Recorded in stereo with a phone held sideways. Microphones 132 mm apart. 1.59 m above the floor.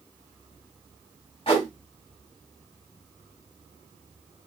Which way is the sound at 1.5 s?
45° left (ahead or behind).